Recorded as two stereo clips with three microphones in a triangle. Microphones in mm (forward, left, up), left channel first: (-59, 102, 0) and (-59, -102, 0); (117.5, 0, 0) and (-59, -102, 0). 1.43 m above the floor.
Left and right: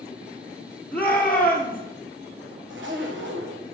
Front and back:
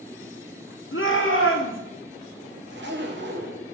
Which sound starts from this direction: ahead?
A shout, at 0.9 s.